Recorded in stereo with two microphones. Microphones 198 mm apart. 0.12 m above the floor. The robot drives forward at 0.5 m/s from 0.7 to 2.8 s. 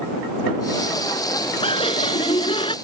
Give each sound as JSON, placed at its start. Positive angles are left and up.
{"t": 1.6, "sound": "laughter", "side_deg": 30}